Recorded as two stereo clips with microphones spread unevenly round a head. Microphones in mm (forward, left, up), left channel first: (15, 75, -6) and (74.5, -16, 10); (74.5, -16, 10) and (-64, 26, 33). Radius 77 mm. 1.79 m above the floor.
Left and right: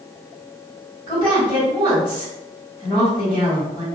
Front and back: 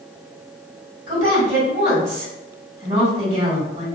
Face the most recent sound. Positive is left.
turn(degrees=-175)